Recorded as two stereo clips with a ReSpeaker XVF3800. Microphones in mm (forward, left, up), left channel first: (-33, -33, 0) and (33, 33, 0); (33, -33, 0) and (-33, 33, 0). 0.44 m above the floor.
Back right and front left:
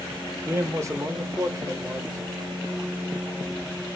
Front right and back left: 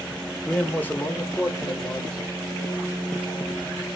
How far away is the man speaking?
About 0.8 m.